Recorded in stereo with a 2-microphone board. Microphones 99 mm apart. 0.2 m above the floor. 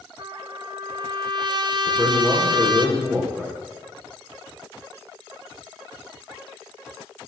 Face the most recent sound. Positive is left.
turn(degrees=-20)  # may be behind; listen again after turning